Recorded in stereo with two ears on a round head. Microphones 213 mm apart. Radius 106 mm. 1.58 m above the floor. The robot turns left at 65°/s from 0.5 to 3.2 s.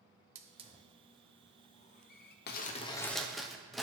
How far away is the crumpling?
About 0.6 m.